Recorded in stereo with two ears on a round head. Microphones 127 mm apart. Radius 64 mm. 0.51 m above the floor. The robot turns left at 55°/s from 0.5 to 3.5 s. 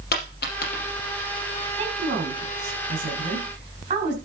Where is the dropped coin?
70° left (ahead or behind), 4.5 m; by 0.9 s 50° left (ahead or behind), 4.5 m.